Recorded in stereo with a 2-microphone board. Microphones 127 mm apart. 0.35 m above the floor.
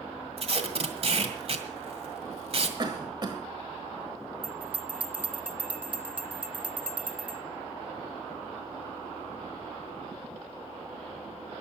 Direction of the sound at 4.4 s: 10° right (ahead or behind).